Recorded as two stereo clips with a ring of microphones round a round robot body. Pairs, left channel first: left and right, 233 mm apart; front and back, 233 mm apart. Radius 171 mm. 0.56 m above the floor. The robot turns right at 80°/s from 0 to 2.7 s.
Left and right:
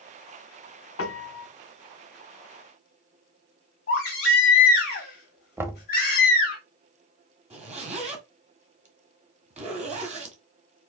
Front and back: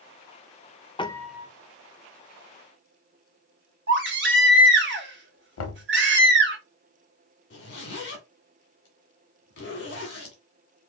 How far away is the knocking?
About 0.8 m.